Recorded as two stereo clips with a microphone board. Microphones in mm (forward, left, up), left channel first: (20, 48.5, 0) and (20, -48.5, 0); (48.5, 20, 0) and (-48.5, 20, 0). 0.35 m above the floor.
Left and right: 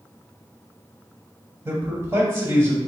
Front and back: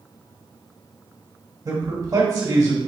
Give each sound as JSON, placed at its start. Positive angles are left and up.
{"t": 1.6, "sound": "a man speaking", "azimuth_deg": -145, "distance_m": 1.5}